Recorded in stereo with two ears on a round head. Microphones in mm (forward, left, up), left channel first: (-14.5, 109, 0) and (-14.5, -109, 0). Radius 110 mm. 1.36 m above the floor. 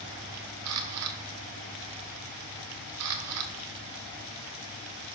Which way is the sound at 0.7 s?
70° right (ahead or behind).